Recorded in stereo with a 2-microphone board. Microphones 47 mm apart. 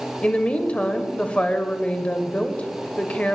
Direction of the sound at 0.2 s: 25° left (ahead or behind).